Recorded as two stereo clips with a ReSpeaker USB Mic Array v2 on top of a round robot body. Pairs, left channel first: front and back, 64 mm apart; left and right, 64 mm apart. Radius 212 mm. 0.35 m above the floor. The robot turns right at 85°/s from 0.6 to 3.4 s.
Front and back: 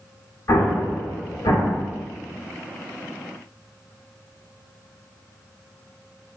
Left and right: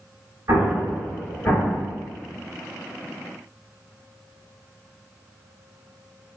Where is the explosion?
50° right, 1.1 m; by 1.8 s 55° left, 1.1 m.